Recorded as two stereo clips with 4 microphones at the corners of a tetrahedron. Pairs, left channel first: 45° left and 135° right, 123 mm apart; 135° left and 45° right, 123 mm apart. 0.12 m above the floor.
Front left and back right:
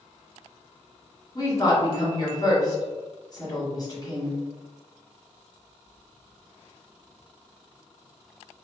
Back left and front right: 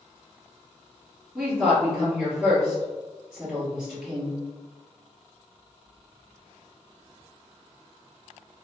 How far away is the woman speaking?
About 1.9 m.